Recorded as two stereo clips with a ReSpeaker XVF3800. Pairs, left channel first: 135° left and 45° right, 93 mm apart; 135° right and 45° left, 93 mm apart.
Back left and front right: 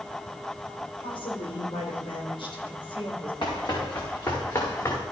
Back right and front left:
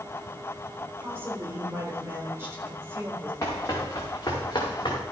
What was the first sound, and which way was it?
A woman speaking, 110° left.